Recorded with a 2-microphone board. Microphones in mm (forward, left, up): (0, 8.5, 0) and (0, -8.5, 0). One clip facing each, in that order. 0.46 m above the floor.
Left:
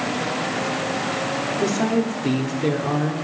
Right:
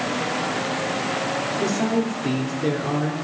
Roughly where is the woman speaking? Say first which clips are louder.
Left 2 dB; centre.